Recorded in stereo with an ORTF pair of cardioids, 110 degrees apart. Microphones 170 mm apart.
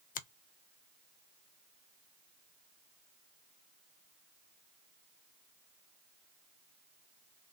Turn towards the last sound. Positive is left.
turn(degrees=55)